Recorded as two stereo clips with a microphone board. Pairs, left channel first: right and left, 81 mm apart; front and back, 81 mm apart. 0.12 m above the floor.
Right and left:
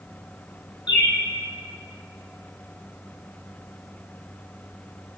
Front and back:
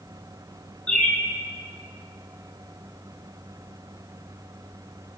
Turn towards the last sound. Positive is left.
turn(degrees=-75)